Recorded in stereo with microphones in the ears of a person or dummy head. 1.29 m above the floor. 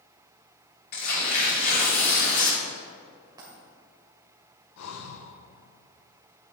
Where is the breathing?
80° left, 0.8 m.